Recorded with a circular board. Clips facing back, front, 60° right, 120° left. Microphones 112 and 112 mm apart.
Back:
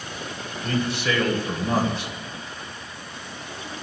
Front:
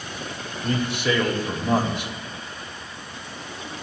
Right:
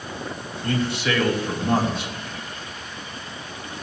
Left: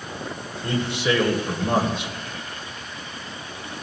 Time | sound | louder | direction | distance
0.6 | a man speaking | front 1 dB, even | 65° left | 1.4 m